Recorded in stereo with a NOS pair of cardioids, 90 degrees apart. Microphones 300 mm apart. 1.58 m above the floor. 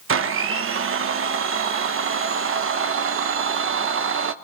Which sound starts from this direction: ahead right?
A blender, at 0.1 s.